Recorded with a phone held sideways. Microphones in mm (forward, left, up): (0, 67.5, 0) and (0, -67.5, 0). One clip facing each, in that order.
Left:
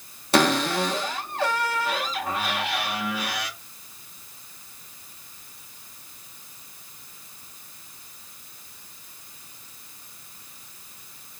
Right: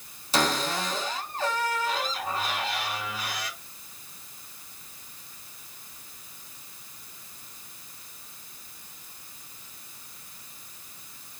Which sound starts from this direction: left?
A cupboard door, at 0.3 s.